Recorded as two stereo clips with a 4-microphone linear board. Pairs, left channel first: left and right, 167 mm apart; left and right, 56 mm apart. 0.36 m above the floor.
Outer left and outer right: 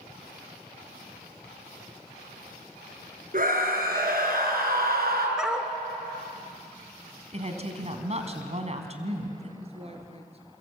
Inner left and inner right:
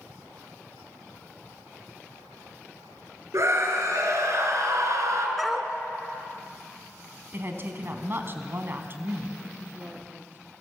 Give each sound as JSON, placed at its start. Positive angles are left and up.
{"t": 3.3, "sound": "a scream", "side_deg": -60, "distance_m": 6.0}
{"t": 5.4, "sound": "a dog barking", "side_deg": -5, "distance_m": 1.4}
{"t": 7.3, "sound": "a woman speaking", "side_deg": -40, "distance_m": 3.5}
{"t": 9.6, "sound": "a woman speaking", "side_deg": -35, "distance_m": 5.0}